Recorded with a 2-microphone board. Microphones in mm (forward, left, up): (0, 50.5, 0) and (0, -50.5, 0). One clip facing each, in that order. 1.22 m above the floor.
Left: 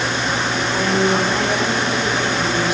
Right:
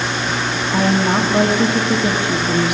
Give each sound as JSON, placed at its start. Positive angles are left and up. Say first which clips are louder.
{"t": 0.7, "sound": "a woman speaking", "louder": "right 2 dB", "side_deg": -75, "distance_m": 2.5}